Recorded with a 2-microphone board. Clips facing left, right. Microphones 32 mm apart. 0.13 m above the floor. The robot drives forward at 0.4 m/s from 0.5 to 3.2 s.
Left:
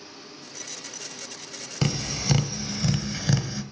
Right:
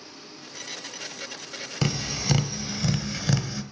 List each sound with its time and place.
1.8 s tapping: centre (ahead or behind), 1.2 m; by 3.6 s 5° right (ahead or behind), 0.8 m